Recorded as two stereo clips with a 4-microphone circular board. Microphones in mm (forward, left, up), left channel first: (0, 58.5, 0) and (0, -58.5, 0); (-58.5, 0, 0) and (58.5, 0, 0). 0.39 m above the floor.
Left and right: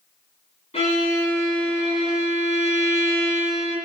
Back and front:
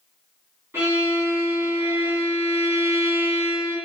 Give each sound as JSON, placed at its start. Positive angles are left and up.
{"t": 0.7, "sound": "a violin", "azimuth_deg": 70, "distance_m": 2.0}